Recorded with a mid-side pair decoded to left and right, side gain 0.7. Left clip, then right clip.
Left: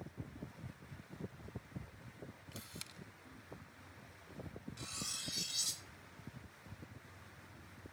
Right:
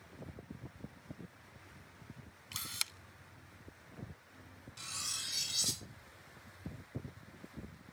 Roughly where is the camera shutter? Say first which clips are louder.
Right 13 dB; ahead right.